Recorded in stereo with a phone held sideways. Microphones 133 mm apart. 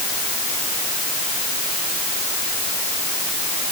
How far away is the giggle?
I don't hear a giggle.